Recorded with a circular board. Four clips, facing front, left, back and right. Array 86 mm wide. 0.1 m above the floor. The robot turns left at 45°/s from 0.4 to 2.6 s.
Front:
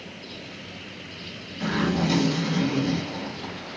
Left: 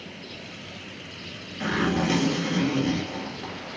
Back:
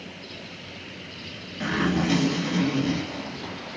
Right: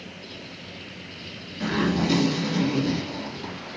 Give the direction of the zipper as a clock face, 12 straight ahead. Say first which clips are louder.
Right 1 dB, even; 7 o'clock.